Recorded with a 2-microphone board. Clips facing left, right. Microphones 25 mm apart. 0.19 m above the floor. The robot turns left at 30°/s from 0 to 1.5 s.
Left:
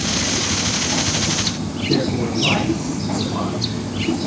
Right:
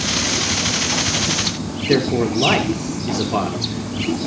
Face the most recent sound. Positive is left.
turn(degrees=-70)  # may be behind; listen again after turning